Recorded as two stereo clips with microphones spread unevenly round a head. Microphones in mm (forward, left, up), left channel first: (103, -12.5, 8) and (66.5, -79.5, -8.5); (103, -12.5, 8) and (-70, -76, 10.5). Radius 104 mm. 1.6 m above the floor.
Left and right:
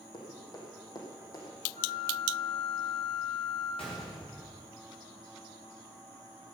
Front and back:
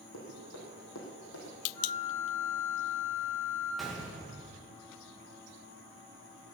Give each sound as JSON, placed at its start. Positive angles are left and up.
{"t": 0.1, "sound": "running footsteps", "azimuth_deg": 45, "distance_m": 5.0}
{"t": 1.7, "sound": "a flute", "azimuth_deg": 65, "distance_m": 7.5}
{"t": 3.8, "sound": "a gunshot", "azimuth_deg": 110, "distance_m": 1.9}